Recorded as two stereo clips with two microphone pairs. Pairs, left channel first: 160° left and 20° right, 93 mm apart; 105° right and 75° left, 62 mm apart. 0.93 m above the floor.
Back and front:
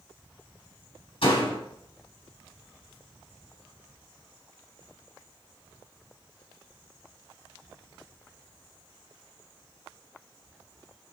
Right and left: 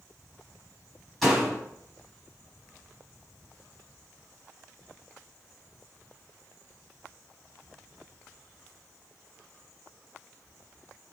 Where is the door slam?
170° left, 4.5 m.